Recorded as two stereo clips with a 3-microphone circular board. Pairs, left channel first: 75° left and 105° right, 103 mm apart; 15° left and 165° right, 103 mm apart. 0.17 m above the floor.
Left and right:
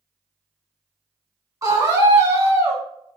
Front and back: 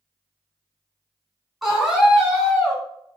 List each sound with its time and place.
1.6 s a scream: 80° right, 1.4 m